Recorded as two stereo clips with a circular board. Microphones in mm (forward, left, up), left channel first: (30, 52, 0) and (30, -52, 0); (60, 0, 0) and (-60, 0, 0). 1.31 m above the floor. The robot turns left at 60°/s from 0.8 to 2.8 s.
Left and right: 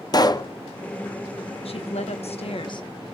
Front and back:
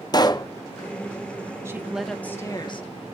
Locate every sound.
0.1 s a pop: 45° left, 0.7 m
1.6 s a woman speaking: 115° left, 1.2 m; by 3.1 s 45° left, 1.2 m